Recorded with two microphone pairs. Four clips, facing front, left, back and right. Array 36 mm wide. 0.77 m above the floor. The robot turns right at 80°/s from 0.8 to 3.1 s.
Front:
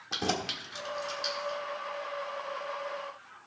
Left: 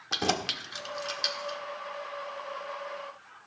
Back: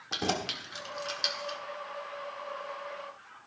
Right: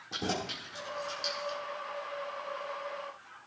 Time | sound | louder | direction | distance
0.1 | keys jangling | left 5 dB, even | 90° left | 1.4 m